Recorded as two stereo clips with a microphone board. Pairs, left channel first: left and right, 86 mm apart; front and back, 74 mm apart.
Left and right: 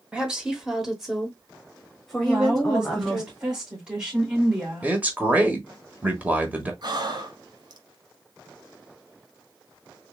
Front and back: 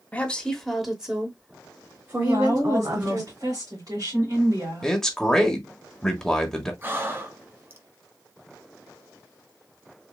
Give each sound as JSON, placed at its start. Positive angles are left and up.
{"t": 0.1, "sound": "a woman speaking", "azimuth_deg": -30, "distance_m": 1.0}
{"t": 2.2, "sound": "a woman speaking", "azimuth_deg": -165, "distance_m": 2.5}
{"t": 4.8, "sound": "a man speaking", "azimuth_deg": -70, "distance_m": 1.1}
{"t": 6.8, "sound": "breathing", "azimuth_deg": -120, "distance_m": 0.9}